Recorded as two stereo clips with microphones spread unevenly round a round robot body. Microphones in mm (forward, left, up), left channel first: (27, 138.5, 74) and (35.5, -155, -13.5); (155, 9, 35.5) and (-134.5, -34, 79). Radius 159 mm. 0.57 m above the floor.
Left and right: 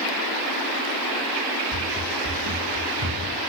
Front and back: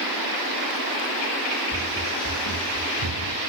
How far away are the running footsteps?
About 1.1 m.